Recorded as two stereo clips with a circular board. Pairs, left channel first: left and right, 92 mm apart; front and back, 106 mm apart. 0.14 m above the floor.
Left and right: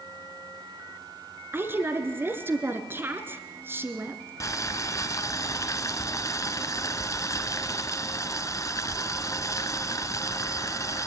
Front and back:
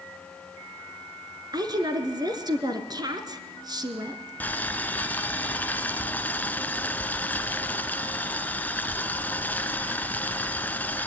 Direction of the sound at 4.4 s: 65° left.